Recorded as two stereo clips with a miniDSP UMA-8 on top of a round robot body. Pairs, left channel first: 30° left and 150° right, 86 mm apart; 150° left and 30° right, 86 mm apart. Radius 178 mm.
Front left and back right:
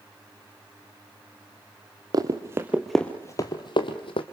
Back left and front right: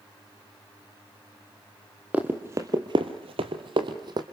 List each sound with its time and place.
2.1 s running footsteps: 105° right, 1.3 m; by 4.2 s 10° left, 1.6 m